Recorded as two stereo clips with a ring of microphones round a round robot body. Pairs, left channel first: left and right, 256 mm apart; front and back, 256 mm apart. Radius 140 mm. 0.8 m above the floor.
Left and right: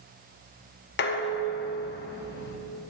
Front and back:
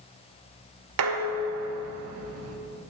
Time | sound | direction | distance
1.0 | dishes clattering | 145° left | 0.8 m